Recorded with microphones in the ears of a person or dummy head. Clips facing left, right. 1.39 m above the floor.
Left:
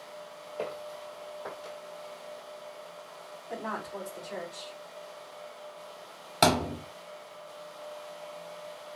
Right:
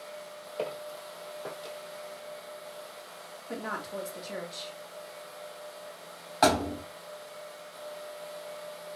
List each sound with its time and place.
0.6 s footsteps: 35° right (ahead or behind), 2.0 m; by 1.8 s 50° right (ahead or behind), 2.5 m
3.5 s a woman speaking: 50° right (ahead or behind), 2.0 m
6.4 s a thud: 40° left (ahead or behind), 0.9 m